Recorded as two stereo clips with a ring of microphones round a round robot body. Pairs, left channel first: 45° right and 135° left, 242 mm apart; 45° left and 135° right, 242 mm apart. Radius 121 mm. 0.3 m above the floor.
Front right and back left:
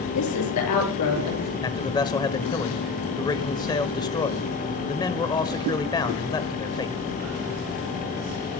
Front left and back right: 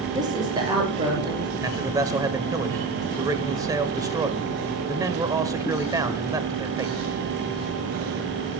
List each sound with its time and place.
0.1 s a woman speaking: 60° right, 7.5 m; by 1.5 s 65° right, 6 m
1.6 s a man speaking: 85° right, 1.3 m